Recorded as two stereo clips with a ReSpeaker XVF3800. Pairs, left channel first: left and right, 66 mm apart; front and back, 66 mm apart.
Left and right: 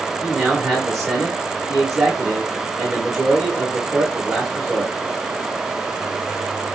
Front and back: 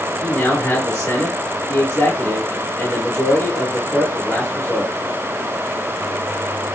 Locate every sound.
0.2 s a man speaking: 5° left, 1.6 m